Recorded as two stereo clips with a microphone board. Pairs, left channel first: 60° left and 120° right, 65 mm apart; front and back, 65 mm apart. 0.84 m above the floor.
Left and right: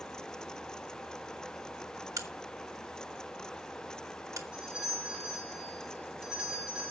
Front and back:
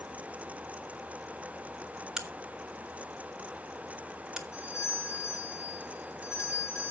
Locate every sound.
2.2 s a crack: 100° right, 1.7 m
4.5 s a doorbell: 45° right, 4.5 m